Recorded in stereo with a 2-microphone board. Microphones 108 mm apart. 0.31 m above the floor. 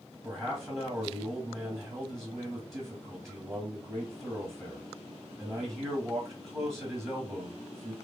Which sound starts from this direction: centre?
A man speaking, at 0.2 s.